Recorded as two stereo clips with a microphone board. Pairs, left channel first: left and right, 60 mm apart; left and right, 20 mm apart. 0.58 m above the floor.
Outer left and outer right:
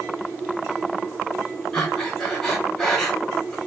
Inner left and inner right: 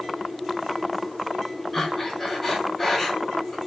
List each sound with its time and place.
1.7 s breathing: 10° left (ahead or behind), 1.1 m